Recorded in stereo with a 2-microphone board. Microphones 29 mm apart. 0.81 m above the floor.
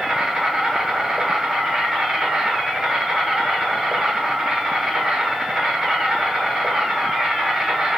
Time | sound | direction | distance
0.0 | an insect | 25° right (ahead or behind) | 1.3 m